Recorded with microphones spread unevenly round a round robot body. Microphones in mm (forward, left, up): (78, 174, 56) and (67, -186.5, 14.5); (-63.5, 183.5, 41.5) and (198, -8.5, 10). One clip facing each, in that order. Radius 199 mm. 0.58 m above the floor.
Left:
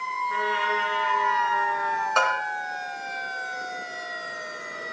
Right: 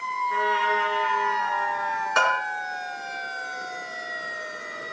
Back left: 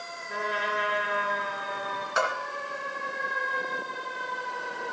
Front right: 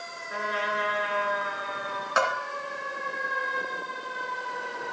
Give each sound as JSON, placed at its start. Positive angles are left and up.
{"t": 0.3, "sound": "a trumpet", "azimuth_deg": 90, "distance_m": 6.5}
{"t": 2.2, "sound": "a bell", "azimuth_deg": -25, "distance_m": 2.5}